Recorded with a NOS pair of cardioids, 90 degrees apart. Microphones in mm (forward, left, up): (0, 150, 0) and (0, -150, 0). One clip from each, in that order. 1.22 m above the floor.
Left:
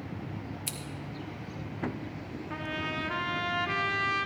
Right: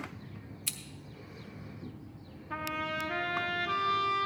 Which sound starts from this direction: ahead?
Scissors, at 0.7 s.